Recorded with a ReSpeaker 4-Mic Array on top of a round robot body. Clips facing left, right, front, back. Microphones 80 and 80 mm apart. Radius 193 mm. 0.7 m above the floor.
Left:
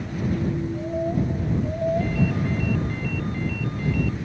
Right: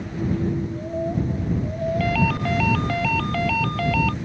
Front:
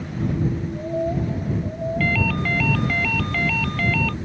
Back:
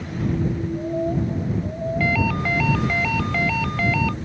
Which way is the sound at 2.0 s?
105° right.